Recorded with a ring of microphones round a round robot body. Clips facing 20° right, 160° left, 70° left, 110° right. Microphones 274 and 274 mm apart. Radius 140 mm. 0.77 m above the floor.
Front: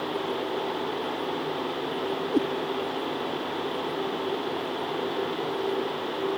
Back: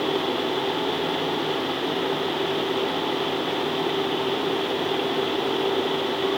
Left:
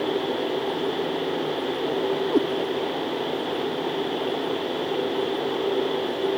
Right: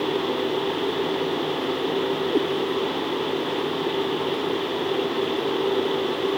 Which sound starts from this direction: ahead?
A cat meowing, at 2.3 s.